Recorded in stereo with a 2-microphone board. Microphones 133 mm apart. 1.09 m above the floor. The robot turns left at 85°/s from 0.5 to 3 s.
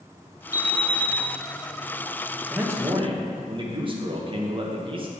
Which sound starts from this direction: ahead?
A man speaking, at 2.5 s.